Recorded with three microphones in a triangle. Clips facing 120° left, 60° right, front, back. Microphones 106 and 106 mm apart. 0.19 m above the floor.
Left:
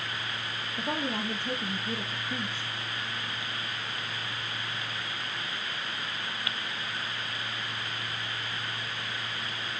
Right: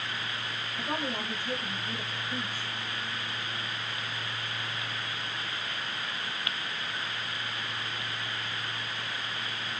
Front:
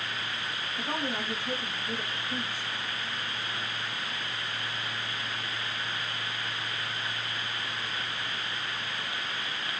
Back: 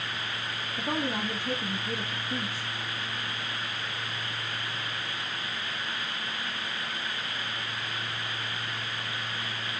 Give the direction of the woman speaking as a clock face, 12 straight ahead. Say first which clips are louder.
Left 2 dB, back 3 dB; 7 o'clock.